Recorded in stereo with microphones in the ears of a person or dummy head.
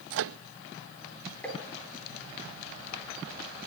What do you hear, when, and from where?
0.1 s a microwave: 65° right (ahead or behind), 0.5 m
1.4 s tapping: 10° left (ahead or behind), 7 m